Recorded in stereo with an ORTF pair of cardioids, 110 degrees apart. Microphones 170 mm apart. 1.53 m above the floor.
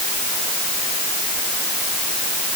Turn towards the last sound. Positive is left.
No sound to turn to.